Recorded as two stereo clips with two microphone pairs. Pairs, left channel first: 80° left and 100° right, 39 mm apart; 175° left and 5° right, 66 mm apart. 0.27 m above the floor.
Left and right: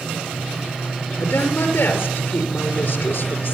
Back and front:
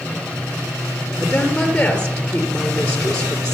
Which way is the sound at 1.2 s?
100° left.